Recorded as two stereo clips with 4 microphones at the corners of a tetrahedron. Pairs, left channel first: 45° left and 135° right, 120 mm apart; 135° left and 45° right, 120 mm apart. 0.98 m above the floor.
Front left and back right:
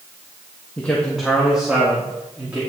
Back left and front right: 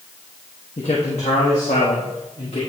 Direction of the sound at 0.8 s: 120° left.